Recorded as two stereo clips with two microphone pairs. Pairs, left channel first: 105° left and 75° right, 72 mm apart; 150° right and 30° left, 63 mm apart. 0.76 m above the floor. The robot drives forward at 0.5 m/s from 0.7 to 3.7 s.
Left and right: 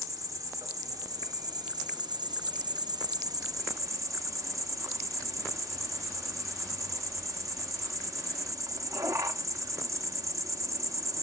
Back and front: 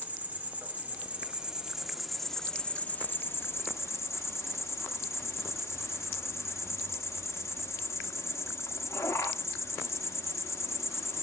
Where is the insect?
35° right, 1.4 m; by 11.2 s 115° right, 1.0 m.